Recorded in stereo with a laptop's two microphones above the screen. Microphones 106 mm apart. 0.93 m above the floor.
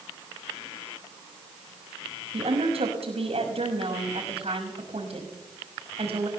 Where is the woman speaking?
70° right (ahead or behind), 5.5 m.